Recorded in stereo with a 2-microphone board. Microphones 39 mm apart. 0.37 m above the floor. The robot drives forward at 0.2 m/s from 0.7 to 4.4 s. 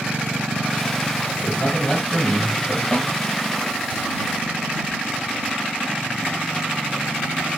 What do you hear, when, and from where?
1.4 s a man speaking: 30° left (ahead or behind), 1.3 m
2.9 s a snare drum: 15° left (ahead or behind), 1.2 m